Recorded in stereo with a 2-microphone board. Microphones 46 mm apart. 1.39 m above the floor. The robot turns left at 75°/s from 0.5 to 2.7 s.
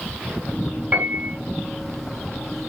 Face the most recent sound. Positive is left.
turn(degrees=-165)